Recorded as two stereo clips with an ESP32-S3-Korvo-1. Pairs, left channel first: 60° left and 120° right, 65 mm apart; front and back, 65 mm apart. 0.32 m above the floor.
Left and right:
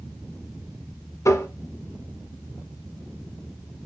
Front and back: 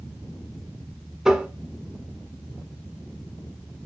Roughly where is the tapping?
Left.